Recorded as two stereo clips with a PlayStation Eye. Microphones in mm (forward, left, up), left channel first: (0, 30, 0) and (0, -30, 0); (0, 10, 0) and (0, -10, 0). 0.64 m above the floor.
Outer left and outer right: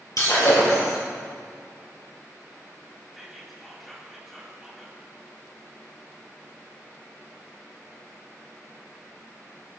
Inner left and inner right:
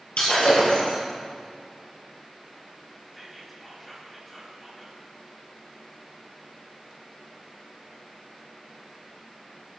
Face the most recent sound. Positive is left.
turn(degrees=0)  # may be behind; listen again after turning